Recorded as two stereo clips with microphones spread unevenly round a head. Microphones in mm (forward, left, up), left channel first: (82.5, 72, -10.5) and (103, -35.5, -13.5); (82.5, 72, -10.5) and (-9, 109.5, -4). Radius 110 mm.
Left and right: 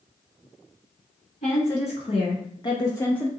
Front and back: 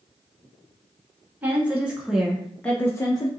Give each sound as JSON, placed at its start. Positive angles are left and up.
{"t": 1.4, "sound": "a woman speaking", "azimuth_deg": 85, "distance_m": 1.5}